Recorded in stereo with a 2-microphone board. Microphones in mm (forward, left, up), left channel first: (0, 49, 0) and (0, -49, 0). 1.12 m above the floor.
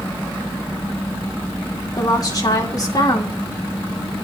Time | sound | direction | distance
2.0 | a woman speaking | 35° left (ahead or behind) | 2.5 m